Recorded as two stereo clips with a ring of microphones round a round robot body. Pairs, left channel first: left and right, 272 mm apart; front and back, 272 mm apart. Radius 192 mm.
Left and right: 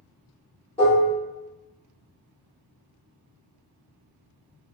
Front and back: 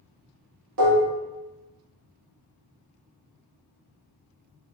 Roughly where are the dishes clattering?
Behind.